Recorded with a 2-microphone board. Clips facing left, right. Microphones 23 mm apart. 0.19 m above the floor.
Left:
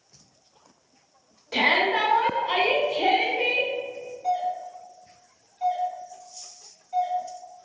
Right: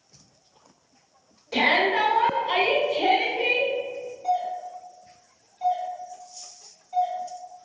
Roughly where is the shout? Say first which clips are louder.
Even; left.